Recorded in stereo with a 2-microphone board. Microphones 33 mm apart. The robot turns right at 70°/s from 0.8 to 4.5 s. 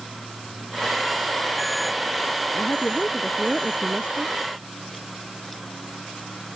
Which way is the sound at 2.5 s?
105° left.